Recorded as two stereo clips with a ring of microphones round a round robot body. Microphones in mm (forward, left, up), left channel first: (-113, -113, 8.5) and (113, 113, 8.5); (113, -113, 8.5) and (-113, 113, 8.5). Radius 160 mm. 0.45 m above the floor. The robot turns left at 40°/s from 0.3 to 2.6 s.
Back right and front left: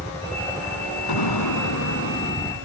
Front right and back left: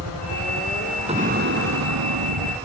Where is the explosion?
155° right; by 2.6 s 150° left.